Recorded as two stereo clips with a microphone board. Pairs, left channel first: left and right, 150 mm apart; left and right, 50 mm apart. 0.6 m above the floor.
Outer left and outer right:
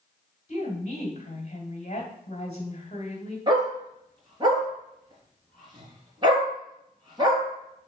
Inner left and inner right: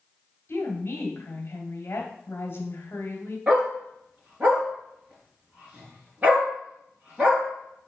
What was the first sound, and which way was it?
A woman speaking, 50° left (ahead or behind).